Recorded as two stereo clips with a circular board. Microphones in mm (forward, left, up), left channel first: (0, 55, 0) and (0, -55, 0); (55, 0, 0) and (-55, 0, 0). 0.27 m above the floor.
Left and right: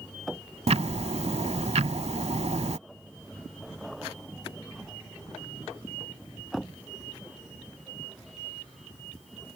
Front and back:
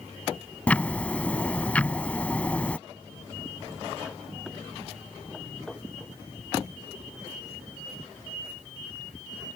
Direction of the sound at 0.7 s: 80° right.